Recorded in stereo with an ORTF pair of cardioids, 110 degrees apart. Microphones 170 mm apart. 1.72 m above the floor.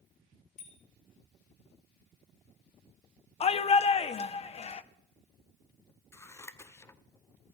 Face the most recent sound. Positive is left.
turn(degrees=15)